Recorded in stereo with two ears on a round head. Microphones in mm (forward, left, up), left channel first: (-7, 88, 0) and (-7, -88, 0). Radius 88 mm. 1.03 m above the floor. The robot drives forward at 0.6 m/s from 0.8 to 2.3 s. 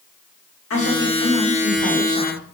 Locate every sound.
0.7 s a woman speaking: 70° left (ahead or behind), 1.9 m; by 2.5 s 55° left (ahead or behind), 2 m